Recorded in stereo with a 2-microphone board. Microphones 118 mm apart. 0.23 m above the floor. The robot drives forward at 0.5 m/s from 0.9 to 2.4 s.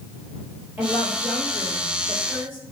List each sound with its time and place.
0.8 s a woman speaking: 20° right (ahead or behind), 4.5 m; by 2.6 s 15° right (ahead or behind), 5 m